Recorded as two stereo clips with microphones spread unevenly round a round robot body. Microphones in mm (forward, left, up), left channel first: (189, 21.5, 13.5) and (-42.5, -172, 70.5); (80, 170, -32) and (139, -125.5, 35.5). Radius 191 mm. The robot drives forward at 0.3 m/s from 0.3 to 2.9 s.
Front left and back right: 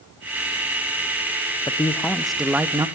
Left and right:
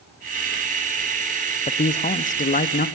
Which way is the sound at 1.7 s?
90° left.